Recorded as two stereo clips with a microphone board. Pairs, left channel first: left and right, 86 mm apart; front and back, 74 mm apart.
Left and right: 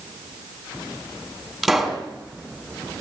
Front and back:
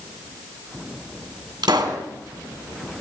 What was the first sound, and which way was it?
A pop, straight behind.